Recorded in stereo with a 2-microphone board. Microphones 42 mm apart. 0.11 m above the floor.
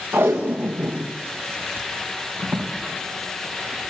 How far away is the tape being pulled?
About 4 m.